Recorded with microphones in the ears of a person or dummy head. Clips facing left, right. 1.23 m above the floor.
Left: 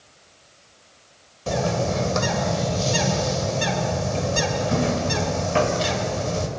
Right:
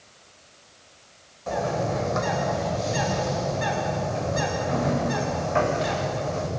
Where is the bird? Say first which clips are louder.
Left 2 dB; 45° left (ahead or behind), 3.5 m.